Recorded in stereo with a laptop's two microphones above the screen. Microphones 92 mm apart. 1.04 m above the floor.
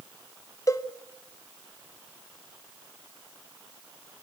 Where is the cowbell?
35° left (ahead or behind), 1.0 m.